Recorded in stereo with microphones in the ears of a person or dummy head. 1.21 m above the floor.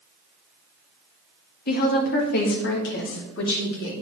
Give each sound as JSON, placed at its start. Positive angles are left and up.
{"t": 1.7, "sound": "a woman speaking", "side_deg": 50, "distance_m": 1.5}